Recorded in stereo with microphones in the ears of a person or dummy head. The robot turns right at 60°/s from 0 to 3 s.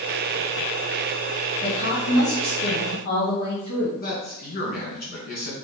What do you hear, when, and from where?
1.6 s a woman speaking: 50° left, 1.3 m; by 3.9 s 130° left, 1.3 m
4.0 s a man speaking: 50° left (ahead or behind), 1.4 m